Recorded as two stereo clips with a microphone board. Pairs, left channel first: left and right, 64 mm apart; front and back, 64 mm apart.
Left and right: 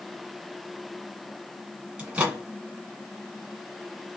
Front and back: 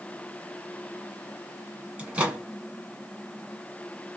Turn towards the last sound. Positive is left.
turn(degrees=-130)